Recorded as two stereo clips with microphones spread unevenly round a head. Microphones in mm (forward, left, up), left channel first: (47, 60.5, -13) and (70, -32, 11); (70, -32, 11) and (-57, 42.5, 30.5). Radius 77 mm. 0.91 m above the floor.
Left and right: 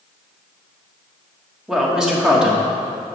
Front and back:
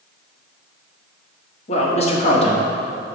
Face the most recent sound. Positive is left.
turn(degrees=10)